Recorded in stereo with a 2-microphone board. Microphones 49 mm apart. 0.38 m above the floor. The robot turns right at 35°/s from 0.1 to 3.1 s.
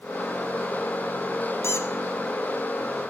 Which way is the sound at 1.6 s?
55° left (ahead or behind).